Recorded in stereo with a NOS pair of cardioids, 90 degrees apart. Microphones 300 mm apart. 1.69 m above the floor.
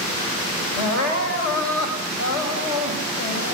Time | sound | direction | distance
0.8 | crying | 70° left | 5 m